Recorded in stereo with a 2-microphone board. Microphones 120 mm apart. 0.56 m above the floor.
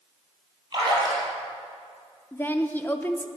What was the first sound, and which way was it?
A splash, 35° right (ahead or behind).